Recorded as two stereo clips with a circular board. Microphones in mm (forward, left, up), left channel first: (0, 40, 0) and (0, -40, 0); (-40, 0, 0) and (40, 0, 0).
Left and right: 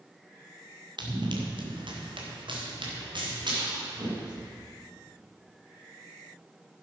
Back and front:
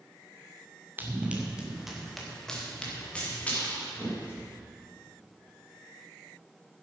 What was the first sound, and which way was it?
Running footsteps, 65° right.